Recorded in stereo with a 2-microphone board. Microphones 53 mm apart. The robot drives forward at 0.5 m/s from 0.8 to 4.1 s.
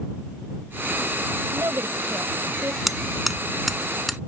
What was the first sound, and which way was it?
A woman speaking, 65° right (ahead or behind).